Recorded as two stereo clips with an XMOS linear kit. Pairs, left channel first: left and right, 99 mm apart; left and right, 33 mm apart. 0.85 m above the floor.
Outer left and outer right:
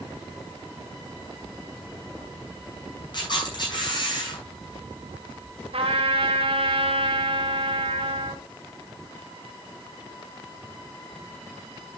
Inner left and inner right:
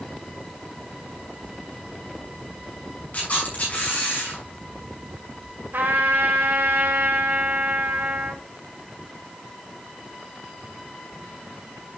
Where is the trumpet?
80° right, 3.5 m.